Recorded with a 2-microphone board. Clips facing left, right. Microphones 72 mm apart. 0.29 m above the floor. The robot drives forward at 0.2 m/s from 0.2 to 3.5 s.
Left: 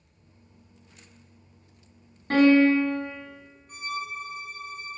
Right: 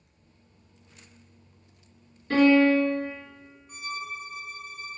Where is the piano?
45° left (ahead or behind), 1.2 m.